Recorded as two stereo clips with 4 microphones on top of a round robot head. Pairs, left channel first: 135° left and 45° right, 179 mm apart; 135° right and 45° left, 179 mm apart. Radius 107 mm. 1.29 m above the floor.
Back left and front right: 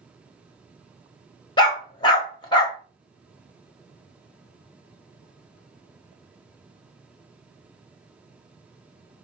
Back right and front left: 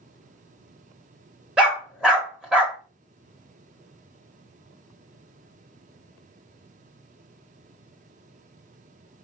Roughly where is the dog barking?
Behind left.